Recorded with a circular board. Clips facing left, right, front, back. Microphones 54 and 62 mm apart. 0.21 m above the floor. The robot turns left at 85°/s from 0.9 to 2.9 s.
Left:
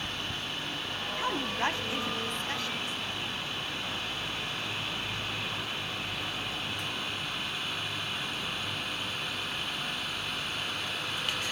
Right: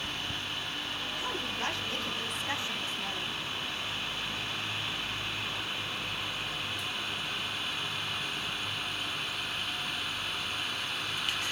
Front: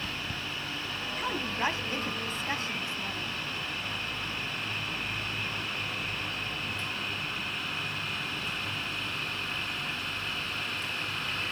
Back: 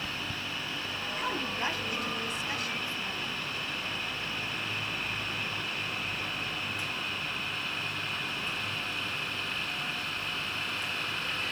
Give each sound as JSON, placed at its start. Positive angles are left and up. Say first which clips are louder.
{"t": 1.2, "sound": "a woman speaking", "louder": "left 6 dB, front 2 dB", "azimuth_deg": 95, "distance_m": 1.2}